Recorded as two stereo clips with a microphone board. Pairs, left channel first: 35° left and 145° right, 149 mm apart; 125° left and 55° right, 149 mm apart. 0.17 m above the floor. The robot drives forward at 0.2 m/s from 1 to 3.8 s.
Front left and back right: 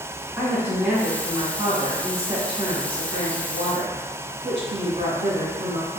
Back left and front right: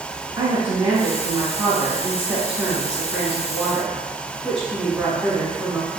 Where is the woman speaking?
95° right, 1.0 m; by 6.0 s 150° right, 1.2 m.